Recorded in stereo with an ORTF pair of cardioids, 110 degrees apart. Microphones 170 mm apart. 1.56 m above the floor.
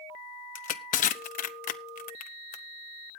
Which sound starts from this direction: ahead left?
Crushing, at 0.6 s.